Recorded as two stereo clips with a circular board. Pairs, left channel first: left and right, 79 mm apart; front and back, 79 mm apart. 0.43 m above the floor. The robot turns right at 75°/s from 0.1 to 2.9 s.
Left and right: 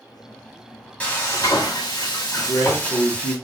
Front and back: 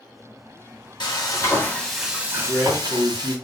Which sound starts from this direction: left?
A man speaking, at 2.4 s.